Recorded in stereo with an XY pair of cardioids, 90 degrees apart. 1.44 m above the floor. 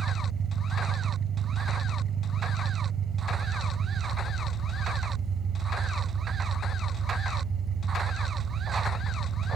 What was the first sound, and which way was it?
An engine running, 70° right.